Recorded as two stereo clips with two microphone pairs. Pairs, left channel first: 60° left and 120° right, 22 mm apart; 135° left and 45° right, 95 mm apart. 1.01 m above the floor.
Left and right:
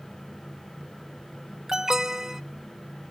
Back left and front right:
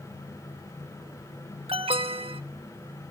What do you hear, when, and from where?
1.7 s an alarm: 55° right, 0.8 m